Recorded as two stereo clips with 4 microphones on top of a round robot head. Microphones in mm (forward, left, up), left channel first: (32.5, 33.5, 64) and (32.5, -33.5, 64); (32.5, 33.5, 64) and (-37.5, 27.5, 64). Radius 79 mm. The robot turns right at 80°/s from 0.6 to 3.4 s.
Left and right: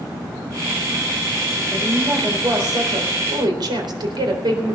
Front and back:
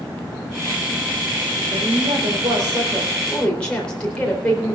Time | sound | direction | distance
1.7 | a woman speaking | 150° left | 4 m